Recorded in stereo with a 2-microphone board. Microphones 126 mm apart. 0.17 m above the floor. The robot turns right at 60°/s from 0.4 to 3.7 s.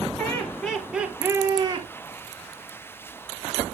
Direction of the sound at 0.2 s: 160° left.